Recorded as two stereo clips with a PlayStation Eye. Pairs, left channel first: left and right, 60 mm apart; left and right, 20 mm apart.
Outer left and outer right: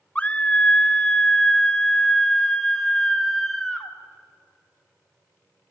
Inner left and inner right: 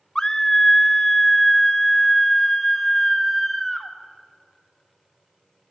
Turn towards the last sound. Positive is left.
turn(degrees=5)  # may be behind; listen again after turning